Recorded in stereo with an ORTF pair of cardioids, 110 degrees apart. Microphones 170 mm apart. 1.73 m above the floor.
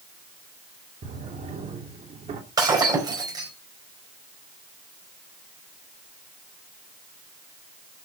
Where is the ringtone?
No ringtone in this recording.